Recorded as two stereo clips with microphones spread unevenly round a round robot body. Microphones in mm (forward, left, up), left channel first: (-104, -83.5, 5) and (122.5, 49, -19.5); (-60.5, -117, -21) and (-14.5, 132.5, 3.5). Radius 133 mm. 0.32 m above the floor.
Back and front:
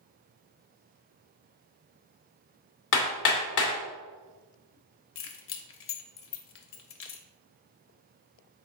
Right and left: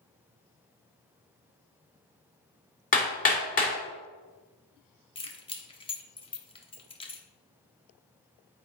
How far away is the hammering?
About 1.9 m.